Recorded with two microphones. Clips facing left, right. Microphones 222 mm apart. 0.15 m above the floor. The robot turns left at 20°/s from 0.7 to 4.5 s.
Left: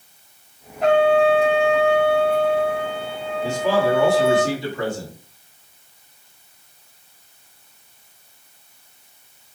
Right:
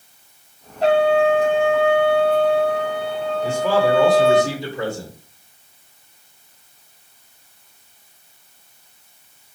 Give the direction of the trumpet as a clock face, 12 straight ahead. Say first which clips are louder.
Even; 1 o'clock.